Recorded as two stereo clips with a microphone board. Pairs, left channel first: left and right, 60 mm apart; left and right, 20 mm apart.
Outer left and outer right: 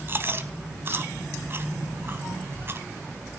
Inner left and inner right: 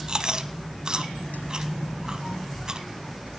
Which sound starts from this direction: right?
Chewing, at 0.1 s.